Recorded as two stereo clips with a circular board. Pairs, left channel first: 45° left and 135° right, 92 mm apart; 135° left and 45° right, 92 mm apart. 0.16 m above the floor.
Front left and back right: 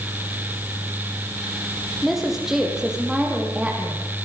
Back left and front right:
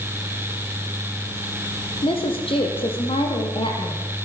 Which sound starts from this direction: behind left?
A woman speaking, at 2.0 s.